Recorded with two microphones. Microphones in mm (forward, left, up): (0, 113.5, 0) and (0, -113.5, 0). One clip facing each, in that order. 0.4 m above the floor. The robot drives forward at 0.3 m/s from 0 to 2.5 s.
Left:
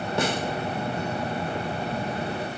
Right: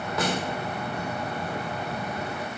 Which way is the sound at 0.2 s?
30° left (ahead or behind).